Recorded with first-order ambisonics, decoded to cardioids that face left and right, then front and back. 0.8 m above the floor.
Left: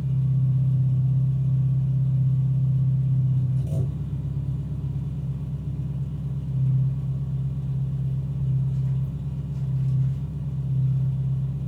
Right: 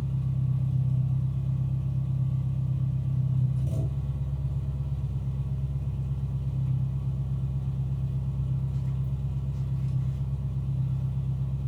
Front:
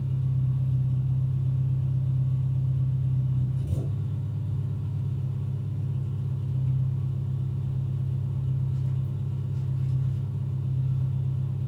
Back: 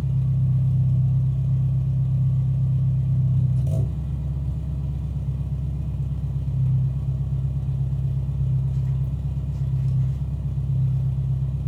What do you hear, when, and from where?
0.0 s an engine running: 175° left, 1.3 m